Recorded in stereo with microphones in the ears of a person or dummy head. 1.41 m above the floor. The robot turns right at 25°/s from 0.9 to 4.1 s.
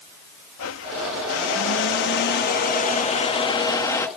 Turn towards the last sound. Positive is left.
turn(degrees=165)